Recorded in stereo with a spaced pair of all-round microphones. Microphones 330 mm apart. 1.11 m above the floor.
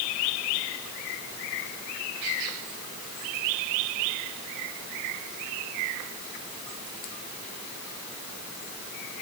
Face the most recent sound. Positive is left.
No sound to turn to.